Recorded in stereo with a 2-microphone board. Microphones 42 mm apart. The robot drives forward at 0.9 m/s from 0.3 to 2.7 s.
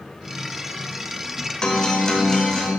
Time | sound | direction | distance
1.6 | a guitar | 20° left (ahead or behind) | 1.1 m